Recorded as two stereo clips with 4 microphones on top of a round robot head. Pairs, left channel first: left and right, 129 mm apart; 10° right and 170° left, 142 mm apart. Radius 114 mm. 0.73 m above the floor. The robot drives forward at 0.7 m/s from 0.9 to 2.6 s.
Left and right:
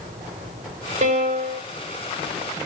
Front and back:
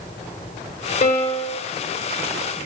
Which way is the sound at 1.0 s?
50° right.